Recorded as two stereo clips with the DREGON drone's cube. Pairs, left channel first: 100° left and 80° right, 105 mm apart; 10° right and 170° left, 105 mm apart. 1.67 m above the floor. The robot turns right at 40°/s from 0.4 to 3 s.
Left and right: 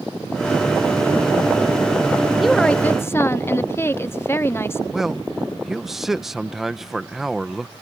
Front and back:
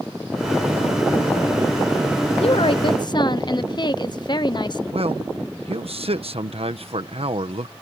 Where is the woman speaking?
10° left; by 4.8 s 35° left.